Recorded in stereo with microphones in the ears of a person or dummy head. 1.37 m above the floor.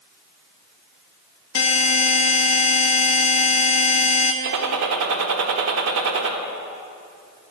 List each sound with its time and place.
1.6 s a buzzer: 70° left (ahead or behind), 0.7 m
4.4 s a gunshot: 70° right (ahead or behind), 1.1 m